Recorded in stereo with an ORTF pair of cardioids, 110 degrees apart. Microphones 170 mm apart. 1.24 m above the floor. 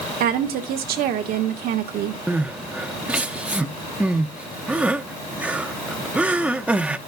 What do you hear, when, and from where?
0.2 s a woman speaking: 65° right, 1.6 m
2.3 s crying: 5° right, 0.7 m